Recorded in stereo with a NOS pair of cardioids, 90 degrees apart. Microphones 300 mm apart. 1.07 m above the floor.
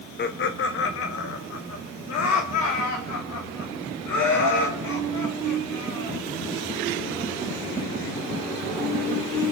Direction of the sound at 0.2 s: 35° left.